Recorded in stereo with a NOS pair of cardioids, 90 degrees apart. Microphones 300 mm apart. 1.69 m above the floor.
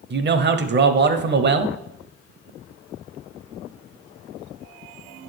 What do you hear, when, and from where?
0.1 s a man speaking: 35° right, 0.7 m